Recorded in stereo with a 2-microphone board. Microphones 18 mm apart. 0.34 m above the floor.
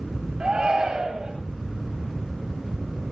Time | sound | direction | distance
0.4 | a shout | 50° right (ahead or behind) | 6.5 m